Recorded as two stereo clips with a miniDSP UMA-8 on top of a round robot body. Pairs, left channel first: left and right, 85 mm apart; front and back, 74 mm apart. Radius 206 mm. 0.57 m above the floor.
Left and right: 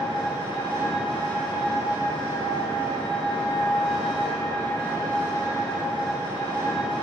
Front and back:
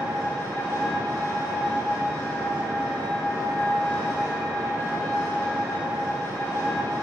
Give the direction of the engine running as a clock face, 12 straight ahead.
10 o'clock.